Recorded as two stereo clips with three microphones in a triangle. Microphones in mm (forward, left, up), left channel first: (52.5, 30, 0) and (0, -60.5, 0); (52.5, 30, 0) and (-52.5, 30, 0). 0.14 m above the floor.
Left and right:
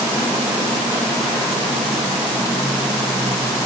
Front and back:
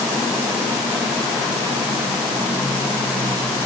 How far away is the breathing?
No breathing in this recording.